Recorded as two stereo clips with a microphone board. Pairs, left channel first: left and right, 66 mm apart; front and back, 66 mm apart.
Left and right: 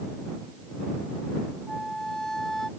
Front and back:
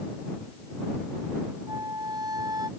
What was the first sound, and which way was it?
A flute, 175° left.